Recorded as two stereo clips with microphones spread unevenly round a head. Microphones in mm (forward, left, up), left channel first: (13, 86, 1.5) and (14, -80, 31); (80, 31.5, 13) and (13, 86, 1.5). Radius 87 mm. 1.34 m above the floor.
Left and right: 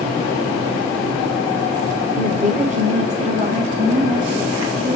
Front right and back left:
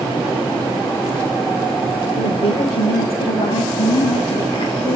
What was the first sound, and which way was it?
A woman speaking, 45° right.